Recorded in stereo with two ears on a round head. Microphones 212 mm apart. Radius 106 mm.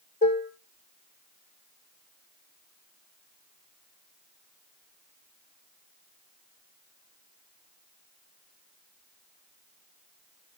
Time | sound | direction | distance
0.2 | dishes clattering | 35° left (ahead or behind) | 1.7 m